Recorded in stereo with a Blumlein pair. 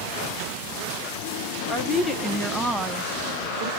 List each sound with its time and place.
1.7 s a woman speaking: 20° left, 1.1 m; by 3.7 s 55° right, 0.6 m